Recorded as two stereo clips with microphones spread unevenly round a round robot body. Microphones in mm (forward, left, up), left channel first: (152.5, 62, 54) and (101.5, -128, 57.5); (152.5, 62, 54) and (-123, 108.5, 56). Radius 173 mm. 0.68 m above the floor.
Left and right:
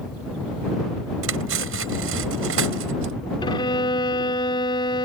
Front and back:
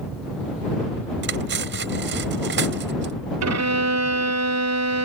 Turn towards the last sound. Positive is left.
turn(degrees=145)